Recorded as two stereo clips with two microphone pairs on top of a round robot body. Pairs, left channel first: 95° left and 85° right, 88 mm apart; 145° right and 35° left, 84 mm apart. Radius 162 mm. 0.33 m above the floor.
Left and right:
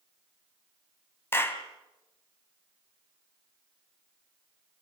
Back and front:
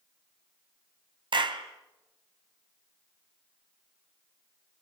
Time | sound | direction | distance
1.3 | a clap | 30° left | 2.5 m